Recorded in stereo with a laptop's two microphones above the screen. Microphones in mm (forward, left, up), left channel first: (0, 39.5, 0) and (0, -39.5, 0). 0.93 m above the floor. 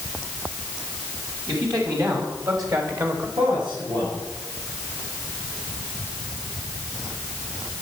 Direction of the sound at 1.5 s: 50° right (ahead or behind).